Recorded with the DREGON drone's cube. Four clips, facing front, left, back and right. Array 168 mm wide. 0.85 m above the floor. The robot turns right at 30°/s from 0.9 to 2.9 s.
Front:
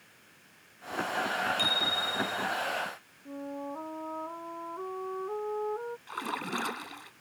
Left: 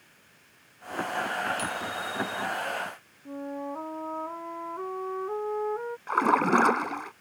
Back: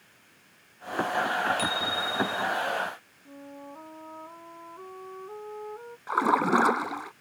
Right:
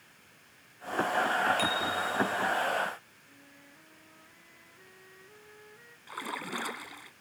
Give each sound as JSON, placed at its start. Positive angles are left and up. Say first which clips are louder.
{"t": 1.6, "sound": "a bicycle bell", "louder": "right 2 dB, back 3 dB", "azimuth_deg": -80}
{"t": 3.2, "sound": "a flute", "louder": "left 23 dB, front 6 dB", "azimuth_deg": 65}
{"t": 6.1, "sound": "a splash", "louder": "left 16 dB, back 15 dB", "azimuth_deg": 130}